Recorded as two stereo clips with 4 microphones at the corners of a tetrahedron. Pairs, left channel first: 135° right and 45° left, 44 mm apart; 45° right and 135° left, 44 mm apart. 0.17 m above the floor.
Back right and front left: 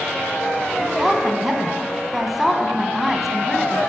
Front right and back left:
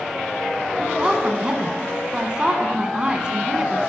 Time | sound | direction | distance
0.8 | a woman speaking | 125° left | 1.2 m